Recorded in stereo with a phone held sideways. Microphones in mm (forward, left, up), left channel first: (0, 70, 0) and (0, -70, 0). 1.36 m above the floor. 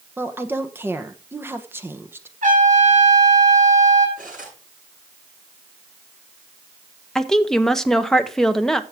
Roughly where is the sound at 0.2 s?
Centre.